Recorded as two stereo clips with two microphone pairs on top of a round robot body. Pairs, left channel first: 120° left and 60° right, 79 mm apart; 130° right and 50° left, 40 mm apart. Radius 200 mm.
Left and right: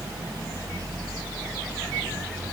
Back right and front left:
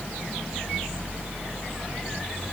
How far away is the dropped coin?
No dropped coin in this recording.